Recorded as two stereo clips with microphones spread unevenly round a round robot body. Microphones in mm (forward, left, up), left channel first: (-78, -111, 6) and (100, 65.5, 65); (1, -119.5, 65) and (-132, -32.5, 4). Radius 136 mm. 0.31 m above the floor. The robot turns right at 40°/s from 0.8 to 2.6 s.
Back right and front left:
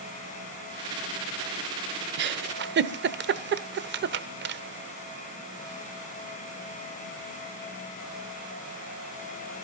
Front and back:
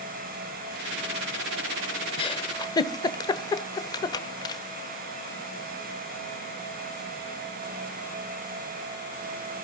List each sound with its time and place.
2.2 s a giggle: 35° left, 1.0 m; by 4.6 s 50° left, 1.0 m